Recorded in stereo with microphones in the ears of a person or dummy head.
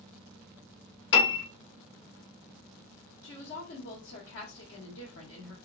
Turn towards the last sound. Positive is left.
turn(degrees=65)  # may be behind; listen again after turning